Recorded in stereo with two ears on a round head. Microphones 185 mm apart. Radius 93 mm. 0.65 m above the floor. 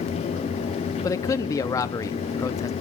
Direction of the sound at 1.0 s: 15° left (ahead or behind).